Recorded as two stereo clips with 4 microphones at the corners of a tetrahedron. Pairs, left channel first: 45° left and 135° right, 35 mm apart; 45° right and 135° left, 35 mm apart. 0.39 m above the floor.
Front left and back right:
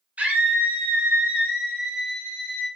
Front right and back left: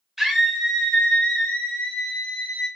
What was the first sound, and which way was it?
A scream, 150° right.